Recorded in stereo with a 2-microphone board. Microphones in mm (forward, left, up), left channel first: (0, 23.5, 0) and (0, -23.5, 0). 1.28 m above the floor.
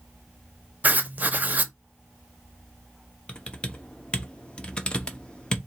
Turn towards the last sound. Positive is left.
turn(degrees=20)  # may be behind; listen again after turning